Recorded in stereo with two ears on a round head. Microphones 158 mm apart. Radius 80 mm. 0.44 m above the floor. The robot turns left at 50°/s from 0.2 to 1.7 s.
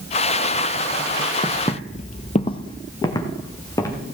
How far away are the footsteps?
About 0.9 m.